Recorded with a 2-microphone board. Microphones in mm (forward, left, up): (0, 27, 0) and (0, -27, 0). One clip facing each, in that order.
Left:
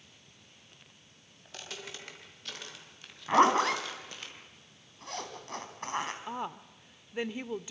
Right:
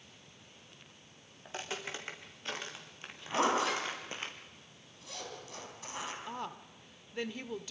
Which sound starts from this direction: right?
Footsteps, at 1.4 s.